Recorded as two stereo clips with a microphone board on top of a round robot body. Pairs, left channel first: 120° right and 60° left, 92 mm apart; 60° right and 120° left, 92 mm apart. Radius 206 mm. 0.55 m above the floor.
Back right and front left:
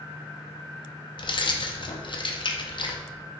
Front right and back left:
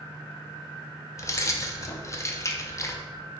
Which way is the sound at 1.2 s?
115° right.